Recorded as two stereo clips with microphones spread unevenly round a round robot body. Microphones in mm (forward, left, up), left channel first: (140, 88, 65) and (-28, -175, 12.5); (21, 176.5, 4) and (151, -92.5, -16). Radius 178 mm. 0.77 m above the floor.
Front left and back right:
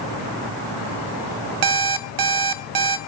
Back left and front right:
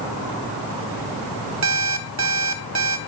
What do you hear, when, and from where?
1.6 s an alarm clock: 120° right, 0.7 m